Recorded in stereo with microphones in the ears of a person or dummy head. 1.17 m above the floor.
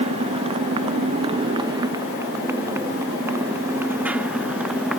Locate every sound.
0.0 s a motorcycle: 35° right (ahead or behind); by 5.0 s 5° right (ahead or behind)